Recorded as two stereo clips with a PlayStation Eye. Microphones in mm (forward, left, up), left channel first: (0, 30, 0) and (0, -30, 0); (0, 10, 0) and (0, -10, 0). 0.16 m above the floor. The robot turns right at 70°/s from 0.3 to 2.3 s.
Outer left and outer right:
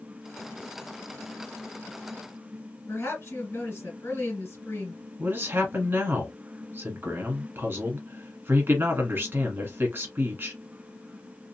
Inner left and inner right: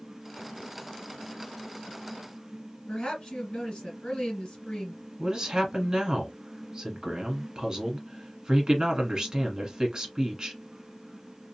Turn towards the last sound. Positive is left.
turn(degrees=-40)  # may be behind; listen again after turning